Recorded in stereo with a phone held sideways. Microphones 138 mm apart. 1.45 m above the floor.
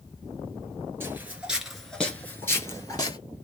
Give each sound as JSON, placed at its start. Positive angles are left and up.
{"t": 1.0, "sound": "footsteps", "side_deg": -15, "distance_m": 1.6}